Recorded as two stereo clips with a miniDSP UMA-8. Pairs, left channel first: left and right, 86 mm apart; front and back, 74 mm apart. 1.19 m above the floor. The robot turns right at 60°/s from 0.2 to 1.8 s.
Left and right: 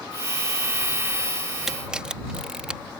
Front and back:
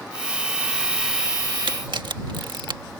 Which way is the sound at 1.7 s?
175° right.